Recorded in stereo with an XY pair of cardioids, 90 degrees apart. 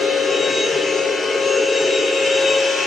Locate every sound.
0.0 s a machine running: 45° left, 3.5 m